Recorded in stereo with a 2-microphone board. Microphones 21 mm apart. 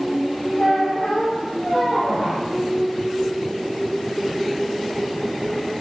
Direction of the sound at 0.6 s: 80° left.